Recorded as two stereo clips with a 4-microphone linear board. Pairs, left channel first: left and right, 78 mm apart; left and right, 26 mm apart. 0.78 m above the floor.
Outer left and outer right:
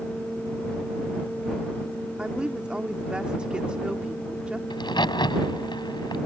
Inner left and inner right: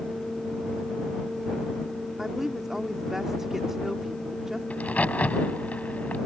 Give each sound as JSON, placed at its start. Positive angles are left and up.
{"t": 2.2, "sound": "a woman speaking", "side_deg": -15}
{"t": 4.7, "sound": "a crack", "side_deg": 80}